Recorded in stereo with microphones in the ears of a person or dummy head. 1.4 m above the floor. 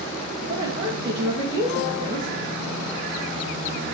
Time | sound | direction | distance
0.5 | a woman speaking | 30° right (ahead or behind) | 1.4 m